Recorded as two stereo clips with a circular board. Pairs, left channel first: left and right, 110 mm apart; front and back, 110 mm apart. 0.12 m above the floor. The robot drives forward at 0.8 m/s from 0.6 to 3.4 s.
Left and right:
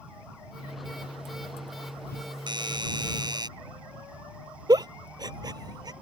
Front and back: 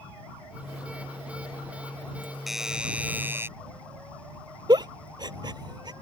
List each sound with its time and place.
2.5 s a doorbell: 90° right; by 3.5 s 120° right
4.7 s a giggle: 135° right